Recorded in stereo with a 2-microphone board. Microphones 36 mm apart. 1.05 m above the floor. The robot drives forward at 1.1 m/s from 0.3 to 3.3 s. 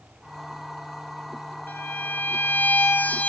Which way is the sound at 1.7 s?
55° left (ahead or behind).